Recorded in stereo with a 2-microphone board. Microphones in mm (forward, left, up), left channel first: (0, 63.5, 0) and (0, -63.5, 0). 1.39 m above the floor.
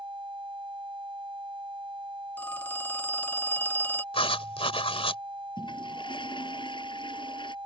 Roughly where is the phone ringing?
Centre.